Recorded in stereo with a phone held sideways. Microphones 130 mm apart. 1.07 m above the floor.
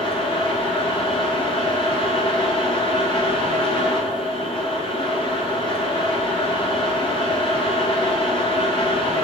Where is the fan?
45° left (ahead or behind), 1.7 m.